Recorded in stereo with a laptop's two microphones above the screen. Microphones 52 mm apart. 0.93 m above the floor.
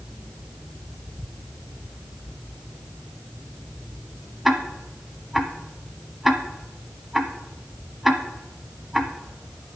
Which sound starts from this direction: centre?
Ticking, at 4.5 s.